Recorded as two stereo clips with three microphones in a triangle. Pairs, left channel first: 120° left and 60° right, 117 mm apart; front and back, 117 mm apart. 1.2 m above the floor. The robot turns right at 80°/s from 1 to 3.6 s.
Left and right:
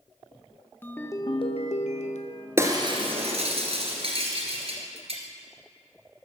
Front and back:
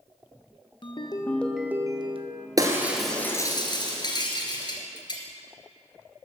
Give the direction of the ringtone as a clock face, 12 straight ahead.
10 o'clock.